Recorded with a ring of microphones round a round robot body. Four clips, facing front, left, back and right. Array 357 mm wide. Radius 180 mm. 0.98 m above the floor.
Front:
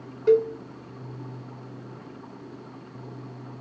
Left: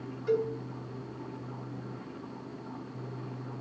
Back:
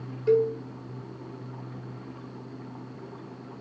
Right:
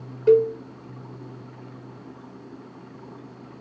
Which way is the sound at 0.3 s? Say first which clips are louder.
Right 12 dB, front 2 dB; 70° right.